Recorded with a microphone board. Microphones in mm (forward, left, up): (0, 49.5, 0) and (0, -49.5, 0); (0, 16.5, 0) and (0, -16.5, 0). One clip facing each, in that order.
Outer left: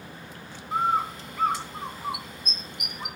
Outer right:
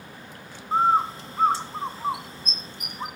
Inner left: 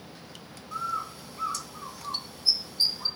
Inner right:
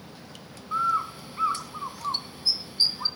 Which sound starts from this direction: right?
A bird, at 0.7 s.